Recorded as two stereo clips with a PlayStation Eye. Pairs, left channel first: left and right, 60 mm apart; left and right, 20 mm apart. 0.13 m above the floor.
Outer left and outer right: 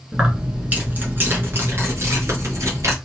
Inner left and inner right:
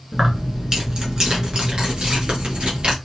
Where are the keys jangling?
15° right (ahead or behind), 1.3 m; by 2.9 s 55° right (ahead or behind), 1.9 m.